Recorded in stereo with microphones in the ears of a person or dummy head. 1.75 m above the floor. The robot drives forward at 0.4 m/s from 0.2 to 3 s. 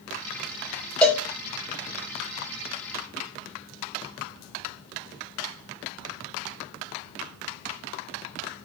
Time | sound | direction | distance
1.0 | a cowbell | 10° left (ahead or behind) | 0.6 m